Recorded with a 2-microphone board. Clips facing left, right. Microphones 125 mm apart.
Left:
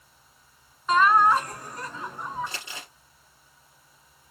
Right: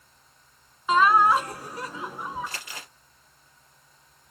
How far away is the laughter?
About 1.2 m.